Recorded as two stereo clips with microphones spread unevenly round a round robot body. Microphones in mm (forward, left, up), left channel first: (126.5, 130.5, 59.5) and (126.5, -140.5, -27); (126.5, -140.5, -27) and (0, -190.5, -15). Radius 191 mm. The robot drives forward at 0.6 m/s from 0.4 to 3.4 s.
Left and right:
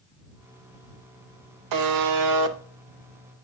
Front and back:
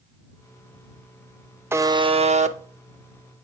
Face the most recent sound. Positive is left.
turn(degrees=-150)